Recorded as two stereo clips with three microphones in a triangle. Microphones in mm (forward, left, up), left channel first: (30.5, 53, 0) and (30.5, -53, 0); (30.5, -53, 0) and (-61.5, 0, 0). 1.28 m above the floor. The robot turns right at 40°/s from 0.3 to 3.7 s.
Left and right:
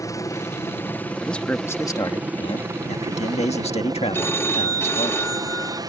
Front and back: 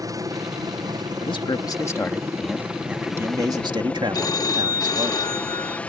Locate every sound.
0.0 s a helicopter: 125° left; by 5.9 s 100° right
1.2 s a man speaking: 5° left; by 5.1 s 105° left
4.1 s a phone ringing: 20° left